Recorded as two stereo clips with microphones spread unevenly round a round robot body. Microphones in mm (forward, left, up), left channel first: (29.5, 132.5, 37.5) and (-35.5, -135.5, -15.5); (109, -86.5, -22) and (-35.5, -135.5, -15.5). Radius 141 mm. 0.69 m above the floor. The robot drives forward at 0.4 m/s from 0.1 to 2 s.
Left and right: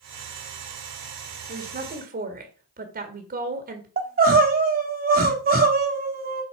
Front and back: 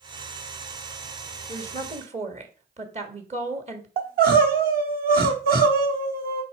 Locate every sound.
1.5 s a woman speaking: 125° right, 1.4 m; by 3.9 s 135° right, 1.5 m
4.0 s crying: 155° right, 1.3 m